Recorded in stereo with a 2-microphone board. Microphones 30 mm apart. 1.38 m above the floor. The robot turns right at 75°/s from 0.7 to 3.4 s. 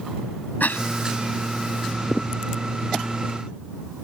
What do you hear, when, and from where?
0.6 s a cough: 75° left (ahead or behind); by 0.9 s 65° left (ahead or behind)